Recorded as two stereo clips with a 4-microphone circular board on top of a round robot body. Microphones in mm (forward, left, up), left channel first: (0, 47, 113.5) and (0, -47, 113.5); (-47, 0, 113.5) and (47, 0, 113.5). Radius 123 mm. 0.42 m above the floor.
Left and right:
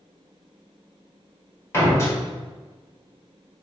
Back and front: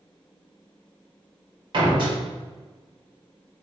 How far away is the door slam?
About 1.7 m.